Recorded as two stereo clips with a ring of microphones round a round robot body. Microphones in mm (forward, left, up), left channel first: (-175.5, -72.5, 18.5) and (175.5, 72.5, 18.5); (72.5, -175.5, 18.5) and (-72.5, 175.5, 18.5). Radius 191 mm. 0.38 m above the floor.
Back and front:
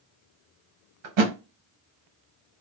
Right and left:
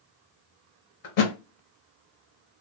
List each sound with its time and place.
1.0 s a thud: 25° right, 0.8 m